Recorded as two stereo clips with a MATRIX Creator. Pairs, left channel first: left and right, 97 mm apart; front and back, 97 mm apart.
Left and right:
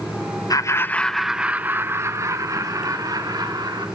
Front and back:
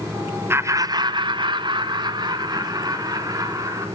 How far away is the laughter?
About 0.9 m.